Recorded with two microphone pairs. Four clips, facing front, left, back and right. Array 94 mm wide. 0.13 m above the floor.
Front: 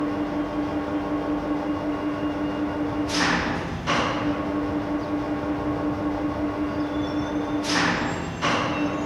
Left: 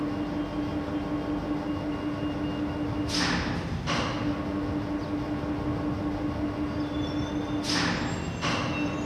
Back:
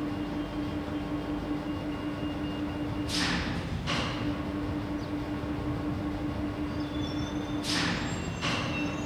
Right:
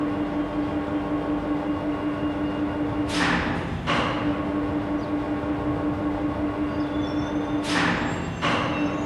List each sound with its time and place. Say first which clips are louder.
0.0 s an engine running: right 5 dB, front 8 dB; 30° right